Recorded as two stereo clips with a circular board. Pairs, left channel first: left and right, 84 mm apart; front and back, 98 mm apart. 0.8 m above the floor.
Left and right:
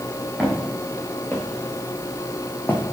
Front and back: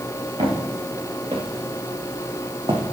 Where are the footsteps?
175° left, 4 m; by 2.8 s 155° left, 2.0 m.